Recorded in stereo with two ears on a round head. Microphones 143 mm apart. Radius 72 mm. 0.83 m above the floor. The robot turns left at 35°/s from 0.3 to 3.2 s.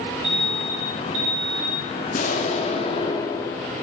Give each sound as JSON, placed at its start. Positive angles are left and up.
{"t": 0.2, "sound": "an alarm", "azimuth_deg": -5, "distance_m": 4.0}
{"t": 2.1, "sound": "an explosion", "azimuth_deg": 65, "distance_m": 2.0}